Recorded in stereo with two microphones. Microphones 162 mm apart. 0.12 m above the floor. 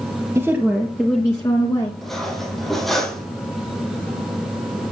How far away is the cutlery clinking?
About 3 m.